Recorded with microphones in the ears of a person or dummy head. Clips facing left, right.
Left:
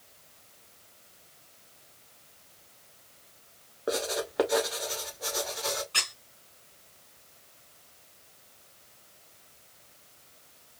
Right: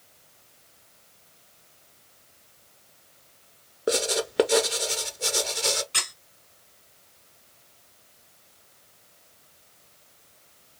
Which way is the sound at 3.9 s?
35° right (ahead or behind).